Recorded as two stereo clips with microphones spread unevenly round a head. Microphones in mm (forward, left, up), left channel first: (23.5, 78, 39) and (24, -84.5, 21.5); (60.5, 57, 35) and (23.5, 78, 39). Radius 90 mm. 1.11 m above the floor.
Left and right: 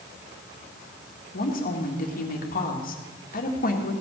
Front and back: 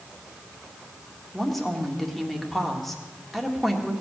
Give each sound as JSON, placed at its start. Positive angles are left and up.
{"t": 1.3, "sound": "a woman speaking", "azimuth_deg": 55, "distance_m": 2.0}